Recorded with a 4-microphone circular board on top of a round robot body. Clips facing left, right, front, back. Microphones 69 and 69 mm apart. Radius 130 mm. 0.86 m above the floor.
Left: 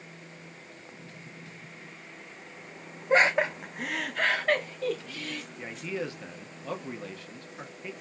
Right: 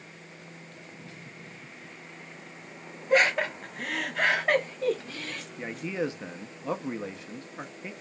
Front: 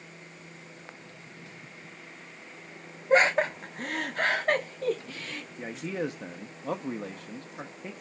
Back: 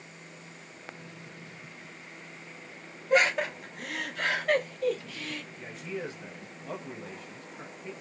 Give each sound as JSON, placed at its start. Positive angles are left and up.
{"t": 3.1, "sound": "laughter", "azimuth_deg": 40, "distance_m": 1.2}
{"t": 5.6, "sound": "a man speaking", "azimuth_deg": -25, "distance_m": 1.1}